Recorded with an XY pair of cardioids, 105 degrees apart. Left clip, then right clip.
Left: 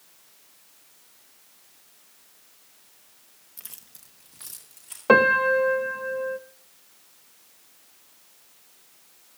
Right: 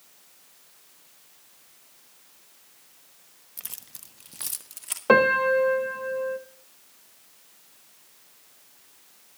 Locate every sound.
3.6 s keys jangling: 25° right, 1.1 m; by 5.0 s 70° right, 2.0 m
5.1 s a piano: 10° left, 1.1 m